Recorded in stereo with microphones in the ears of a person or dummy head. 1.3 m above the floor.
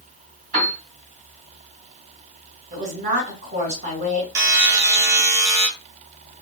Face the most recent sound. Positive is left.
turn(degrees=-15)  # may be behind; listen again after turning